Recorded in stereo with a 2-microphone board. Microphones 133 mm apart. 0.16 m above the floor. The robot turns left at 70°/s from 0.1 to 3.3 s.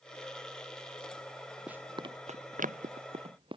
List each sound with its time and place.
1.7 s running footsteps: 5° right (ahead or behind); by 3.6 s 40° right (ahead or behind)